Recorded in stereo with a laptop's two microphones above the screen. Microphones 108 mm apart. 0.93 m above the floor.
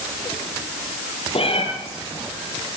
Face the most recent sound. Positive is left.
turn(degrees=60)  # may be behind; listen again after turning